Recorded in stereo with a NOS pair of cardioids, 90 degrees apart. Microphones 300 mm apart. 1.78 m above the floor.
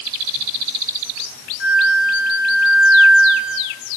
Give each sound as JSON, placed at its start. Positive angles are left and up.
{"t": 1.6, "sound": "a flute", "azimuth_deg": 45, "distance_m": 7.5}